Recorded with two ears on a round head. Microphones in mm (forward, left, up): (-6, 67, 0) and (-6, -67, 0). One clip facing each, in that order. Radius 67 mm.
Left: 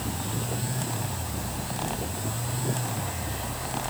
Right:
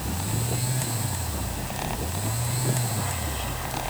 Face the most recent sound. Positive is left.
No sound to turn to.